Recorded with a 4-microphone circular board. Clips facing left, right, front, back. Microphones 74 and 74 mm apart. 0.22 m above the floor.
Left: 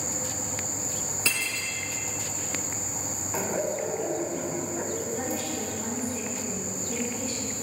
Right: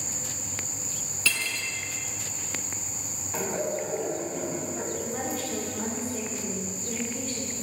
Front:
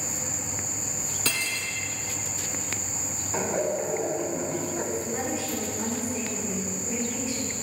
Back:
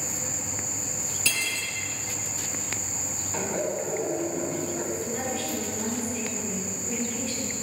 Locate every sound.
1.2 s cutlery clinking: 25° left, 1.2 m
3.3 s laughter: 25° left, 1.0 m
5.0 s a woman speaking: 70° right, 3.5 m